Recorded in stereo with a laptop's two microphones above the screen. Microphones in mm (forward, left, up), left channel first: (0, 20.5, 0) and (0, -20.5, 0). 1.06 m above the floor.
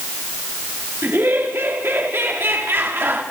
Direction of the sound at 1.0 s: 65° right (ahead or behind).